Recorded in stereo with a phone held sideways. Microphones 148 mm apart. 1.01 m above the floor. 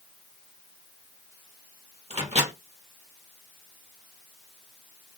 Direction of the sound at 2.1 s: 50° right (ahead or behind).